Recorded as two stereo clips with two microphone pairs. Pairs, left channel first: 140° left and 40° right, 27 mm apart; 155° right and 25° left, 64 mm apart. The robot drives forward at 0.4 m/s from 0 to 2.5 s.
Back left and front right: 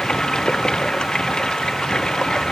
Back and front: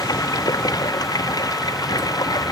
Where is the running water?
155° right.